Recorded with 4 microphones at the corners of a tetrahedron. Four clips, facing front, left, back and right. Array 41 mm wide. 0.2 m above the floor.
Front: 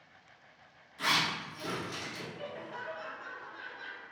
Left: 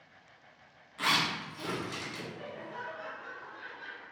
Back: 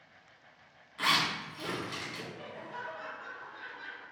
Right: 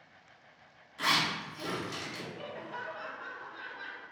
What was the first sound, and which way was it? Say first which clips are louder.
A zipper: even, back 1 dB; 155° left.